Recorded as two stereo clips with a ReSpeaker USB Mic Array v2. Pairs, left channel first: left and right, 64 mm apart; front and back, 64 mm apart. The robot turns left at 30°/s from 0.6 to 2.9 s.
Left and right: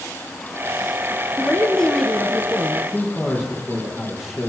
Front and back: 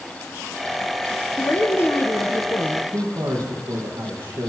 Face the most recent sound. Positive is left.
turn(degrees=-170)